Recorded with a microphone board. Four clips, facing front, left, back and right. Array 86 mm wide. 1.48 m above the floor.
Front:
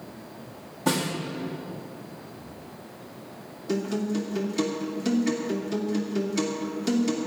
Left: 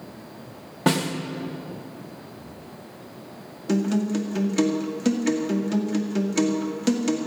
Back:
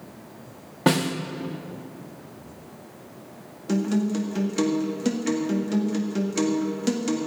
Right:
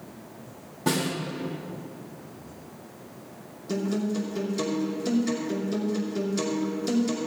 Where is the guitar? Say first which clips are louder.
Left 4 dB, back 3 dB; 115° left, 2 m.